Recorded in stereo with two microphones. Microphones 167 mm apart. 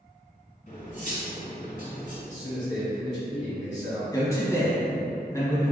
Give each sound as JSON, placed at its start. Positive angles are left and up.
{"t": 0.7, "sound": "cutlery clinking", "side_deg": 50, "distance_m": 1.1}
{"t": 2.3, "sound": "a man speaking", "side_deg": 10, "distance_m": 1.3}
{"t": 4.1, "sound": "a man speaking", "side_deg": 20, "distance_m": 1.0}